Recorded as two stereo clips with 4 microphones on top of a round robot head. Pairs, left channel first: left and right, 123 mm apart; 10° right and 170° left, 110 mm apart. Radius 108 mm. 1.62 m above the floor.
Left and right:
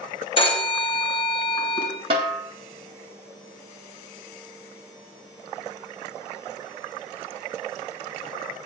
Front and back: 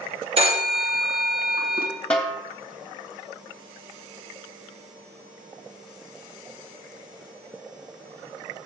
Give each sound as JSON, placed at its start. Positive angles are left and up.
{"t": 0.4, "sound": "a phone ringing", "azimuth_deg": 135, "distance_m": 1.9}
{"t": 2.1, "sound": "a snare drum", "azimuth_deg": -90, "distance_m": 1.3}